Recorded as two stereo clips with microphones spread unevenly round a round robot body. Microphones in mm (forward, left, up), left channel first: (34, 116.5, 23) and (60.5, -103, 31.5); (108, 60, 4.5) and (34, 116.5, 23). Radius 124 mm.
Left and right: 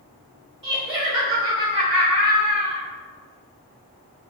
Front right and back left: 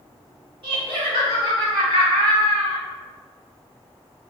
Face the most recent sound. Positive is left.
turn(degrees=-155)